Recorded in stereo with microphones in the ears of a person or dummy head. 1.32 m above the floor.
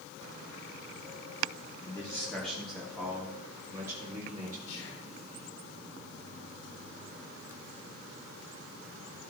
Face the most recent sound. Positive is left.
turn(degrees=85)